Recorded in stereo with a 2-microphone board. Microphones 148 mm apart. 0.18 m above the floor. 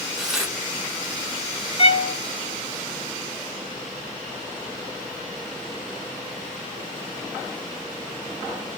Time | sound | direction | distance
0.2 | tearing paper | 5° right (ahead or behind) | 1.1 m
1.8 | a violin | 45° left (ahead or behind) | 0.8 m